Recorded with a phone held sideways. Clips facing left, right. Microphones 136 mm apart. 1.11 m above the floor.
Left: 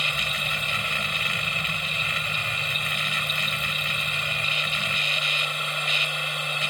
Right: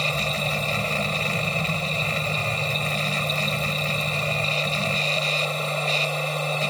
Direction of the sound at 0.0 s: 40° right (ahead or behind).